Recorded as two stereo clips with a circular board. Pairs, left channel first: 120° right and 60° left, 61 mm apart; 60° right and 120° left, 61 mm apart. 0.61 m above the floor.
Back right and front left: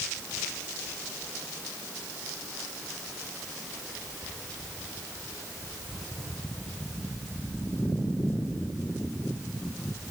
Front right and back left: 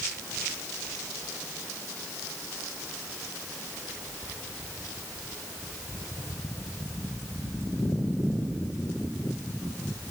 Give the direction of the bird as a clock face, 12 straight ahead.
No bird in this recording.